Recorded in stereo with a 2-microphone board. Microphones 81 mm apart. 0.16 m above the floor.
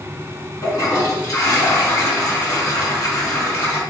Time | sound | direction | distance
0.6 | a toilet flushing | 40° left (ahead or behind) | 1.5 m